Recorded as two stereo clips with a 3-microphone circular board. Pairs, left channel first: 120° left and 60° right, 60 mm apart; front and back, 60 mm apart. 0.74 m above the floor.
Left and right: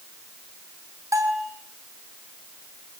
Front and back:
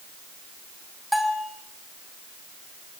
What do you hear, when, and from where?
1.1 s a bell: 90° right, 3.5 m